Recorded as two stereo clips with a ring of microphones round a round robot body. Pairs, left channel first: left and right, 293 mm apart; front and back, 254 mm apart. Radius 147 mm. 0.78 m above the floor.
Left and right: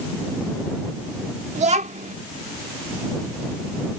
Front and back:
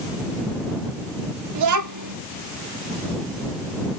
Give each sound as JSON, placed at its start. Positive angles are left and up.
{"t": 1.6, "sound": "a child speaking", "azimuth_deg": -160}